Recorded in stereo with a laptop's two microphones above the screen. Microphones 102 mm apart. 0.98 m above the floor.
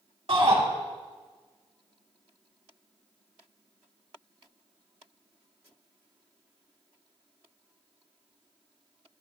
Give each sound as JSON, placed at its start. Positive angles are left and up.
{"t": 0.3, "sound": "a shout", "side_deg": -70, "distance_m": 2.5}